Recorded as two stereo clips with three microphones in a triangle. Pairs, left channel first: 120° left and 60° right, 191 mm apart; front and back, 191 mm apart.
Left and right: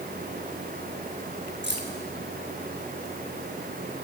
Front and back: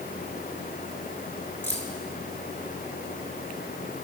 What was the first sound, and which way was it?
Keys jangling, 80° right.